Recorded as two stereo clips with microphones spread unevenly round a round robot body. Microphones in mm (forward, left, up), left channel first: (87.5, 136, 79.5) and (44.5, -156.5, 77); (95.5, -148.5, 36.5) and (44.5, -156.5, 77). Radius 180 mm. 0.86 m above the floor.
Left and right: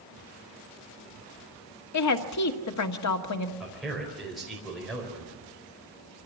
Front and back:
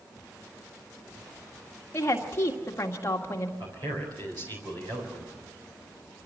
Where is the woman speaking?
50° left, 1.8 m.